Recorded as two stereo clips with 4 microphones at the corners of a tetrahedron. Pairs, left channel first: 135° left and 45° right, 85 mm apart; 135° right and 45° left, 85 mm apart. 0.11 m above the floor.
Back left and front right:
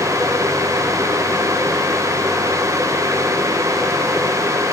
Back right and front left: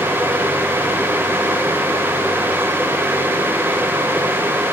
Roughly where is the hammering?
No hammering in this recording.